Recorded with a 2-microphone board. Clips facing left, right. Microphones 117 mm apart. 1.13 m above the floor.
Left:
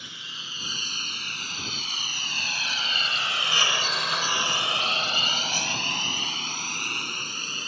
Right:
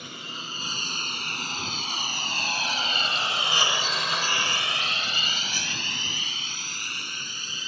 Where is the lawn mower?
55° right (ahead or behind); by 7.7 s 55° left (ahead or behind).